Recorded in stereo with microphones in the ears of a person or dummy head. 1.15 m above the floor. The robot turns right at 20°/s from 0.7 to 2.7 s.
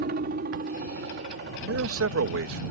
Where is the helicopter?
45° right (ahead or behind); by 2.7 s 60° right (ahead or behind).